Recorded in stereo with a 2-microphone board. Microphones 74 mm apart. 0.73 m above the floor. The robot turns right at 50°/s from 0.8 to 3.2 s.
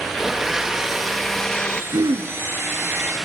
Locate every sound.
0.2 s a blender: 5° right (ahead or behind), 0.8 m; by 1.8 s 10° left (ahead or behind), 0.8 m
1.9 s throat clearing: 65° right (ahead or behind), 3.5 m; by 2.3 s 85° right, 3.5 m